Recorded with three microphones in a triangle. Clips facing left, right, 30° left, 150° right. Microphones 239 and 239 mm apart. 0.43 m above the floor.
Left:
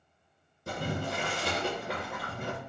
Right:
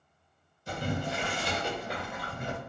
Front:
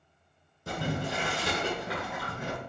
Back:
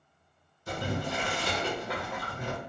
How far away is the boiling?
About 1.9 m.